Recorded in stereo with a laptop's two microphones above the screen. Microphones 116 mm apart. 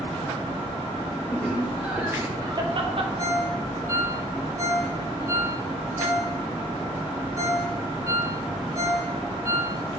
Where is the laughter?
10° left (ahead or behind), 1.4 m; by 3.1 s 55° right (ahead or behind), 1.4 m.